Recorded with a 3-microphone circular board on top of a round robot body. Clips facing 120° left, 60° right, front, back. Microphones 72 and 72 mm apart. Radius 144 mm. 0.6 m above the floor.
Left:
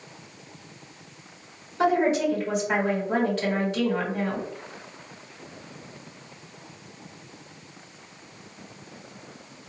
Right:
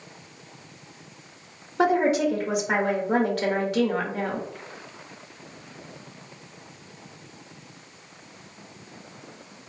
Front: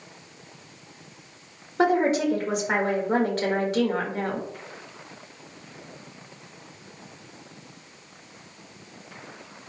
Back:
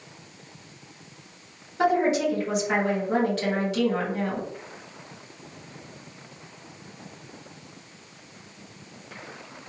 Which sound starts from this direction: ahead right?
A woman speaking, at 1.8 s.